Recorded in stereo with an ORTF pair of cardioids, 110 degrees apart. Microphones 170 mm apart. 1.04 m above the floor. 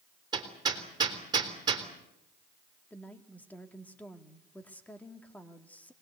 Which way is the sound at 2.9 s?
10° left.